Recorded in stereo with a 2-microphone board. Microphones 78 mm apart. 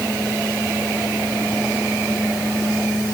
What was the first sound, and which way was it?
Only background noise.